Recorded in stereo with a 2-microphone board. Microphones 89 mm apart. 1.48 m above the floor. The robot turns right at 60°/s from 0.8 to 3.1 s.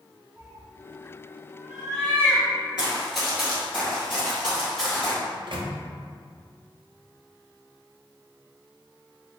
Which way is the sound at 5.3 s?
65° right (ahead or behind).